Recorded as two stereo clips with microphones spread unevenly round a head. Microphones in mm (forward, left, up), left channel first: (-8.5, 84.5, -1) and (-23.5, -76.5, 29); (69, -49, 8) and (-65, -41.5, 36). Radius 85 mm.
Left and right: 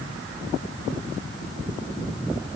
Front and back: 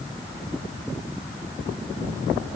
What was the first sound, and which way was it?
Only background noise.